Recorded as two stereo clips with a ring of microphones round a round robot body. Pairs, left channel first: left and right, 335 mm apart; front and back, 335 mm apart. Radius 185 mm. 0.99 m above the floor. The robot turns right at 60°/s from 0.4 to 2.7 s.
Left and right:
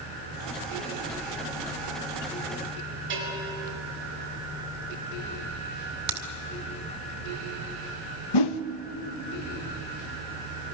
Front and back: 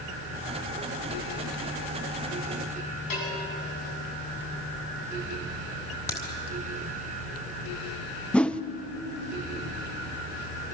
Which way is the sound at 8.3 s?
85° left.